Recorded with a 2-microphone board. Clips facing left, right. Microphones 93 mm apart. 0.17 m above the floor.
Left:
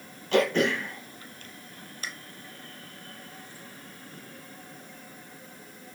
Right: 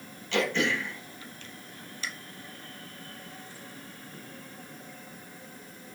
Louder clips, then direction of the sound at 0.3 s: Left 4 dB; 45° left (ahead or behind).